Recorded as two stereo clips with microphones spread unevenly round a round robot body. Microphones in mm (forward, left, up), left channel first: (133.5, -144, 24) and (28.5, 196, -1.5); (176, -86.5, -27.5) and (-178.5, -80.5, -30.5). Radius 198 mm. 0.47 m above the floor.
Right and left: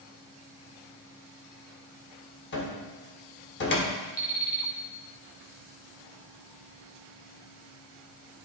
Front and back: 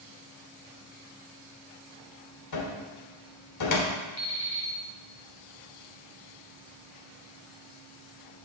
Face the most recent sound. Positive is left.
turn(degrees=65)